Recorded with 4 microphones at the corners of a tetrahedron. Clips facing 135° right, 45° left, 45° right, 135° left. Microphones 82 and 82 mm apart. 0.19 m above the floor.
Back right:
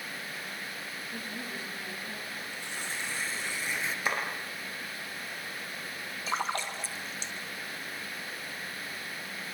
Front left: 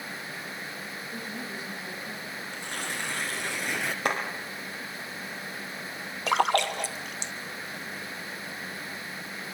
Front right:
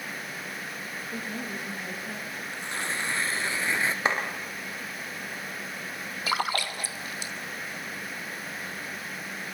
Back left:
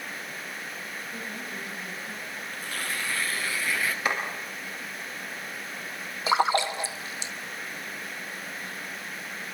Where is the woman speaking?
25° right, 7 m.